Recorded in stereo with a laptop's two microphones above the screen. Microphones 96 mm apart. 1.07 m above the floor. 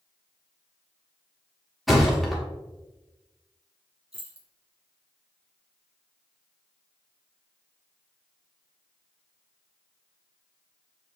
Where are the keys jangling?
80° right, 1.2 m.